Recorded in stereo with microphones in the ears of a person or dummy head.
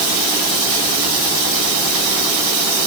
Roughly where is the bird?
No bird in this recording.